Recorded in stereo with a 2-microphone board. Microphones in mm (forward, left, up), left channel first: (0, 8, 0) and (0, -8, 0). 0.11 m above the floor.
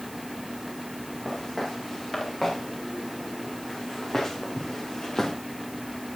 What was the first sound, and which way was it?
Footsteps, 25° left (ahead or behind).